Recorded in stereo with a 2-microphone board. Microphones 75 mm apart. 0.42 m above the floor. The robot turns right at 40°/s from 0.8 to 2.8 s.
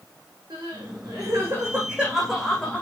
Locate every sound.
0.5 s crying: 60° right (ahead or behind), 10 m; by 2.8 s 20° left (ahead or behind), 10 m